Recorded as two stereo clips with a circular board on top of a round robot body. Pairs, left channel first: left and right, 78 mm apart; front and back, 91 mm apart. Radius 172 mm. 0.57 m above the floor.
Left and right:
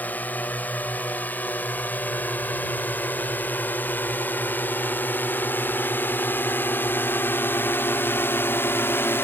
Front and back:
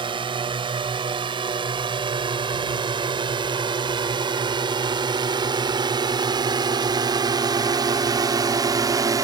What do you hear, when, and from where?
0.0 s a drone: 160° left; by 9.2 s 145° left